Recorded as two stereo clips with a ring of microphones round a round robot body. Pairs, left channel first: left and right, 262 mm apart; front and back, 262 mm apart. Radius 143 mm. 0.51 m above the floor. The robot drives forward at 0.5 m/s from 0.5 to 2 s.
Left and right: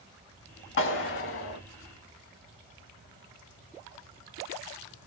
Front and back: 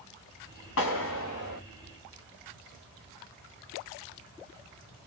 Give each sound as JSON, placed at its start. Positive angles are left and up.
{"t": 0.8, "sound": "a clap", "azimuth_deg": 45, "distance_m": 3.0}